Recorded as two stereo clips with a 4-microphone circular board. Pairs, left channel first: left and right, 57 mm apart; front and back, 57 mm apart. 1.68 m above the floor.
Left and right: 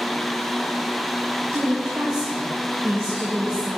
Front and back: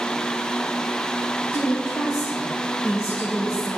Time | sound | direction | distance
1.5 | a woman speaking | 50° right | 1.2 m